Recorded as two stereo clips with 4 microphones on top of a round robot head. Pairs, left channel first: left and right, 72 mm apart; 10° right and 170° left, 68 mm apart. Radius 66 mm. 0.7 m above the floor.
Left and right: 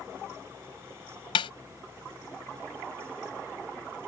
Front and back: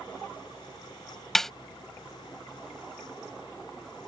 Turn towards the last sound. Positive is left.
turn(degrees=80)